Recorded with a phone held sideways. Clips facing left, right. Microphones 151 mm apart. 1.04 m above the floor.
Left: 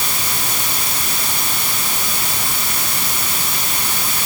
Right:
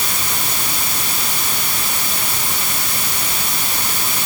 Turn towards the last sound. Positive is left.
No sound to turn to.